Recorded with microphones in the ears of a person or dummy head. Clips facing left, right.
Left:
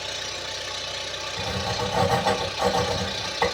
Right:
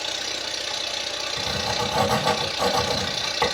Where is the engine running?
30° right (ahead or behind), 1.7 m.